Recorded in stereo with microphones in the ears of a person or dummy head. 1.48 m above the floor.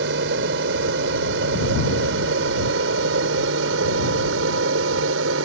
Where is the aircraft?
65° right (ahead or behind); by 5.4 s 75° right (ahead or behind).